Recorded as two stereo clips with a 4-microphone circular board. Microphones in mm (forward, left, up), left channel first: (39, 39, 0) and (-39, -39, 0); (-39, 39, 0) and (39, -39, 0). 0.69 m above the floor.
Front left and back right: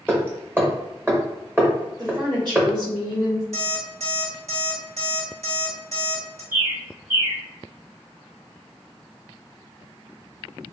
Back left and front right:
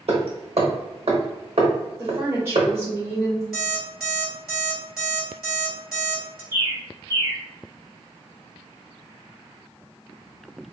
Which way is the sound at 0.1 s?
65° right.